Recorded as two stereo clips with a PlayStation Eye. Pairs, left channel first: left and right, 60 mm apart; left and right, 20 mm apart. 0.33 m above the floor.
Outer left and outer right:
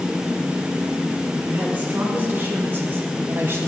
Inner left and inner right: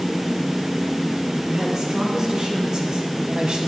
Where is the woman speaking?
25° right (ahead or behind), 3 m; by 3.7 s 40° right (ahead or behind), 1.7 m.